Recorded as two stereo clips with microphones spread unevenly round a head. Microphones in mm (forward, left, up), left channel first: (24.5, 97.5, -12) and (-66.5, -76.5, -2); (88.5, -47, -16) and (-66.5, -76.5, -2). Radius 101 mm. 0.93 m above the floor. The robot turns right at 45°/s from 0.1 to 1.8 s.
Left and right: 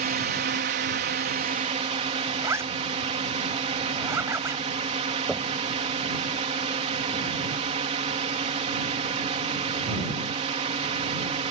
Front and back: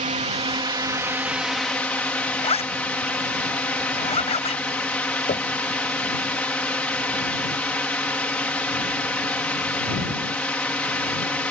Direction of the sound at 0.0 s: 145° right.